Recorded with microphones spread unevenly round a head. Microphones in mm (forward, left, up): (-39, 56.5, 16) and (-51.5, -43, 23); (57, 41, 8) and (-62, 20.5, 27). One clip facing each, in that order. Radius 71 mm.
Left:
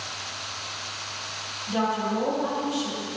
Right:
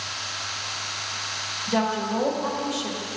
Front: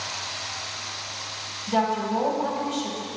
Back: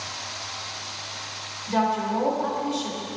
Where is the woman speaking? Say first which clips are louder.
Right 1 dB, even; 55° right, 1.5 m.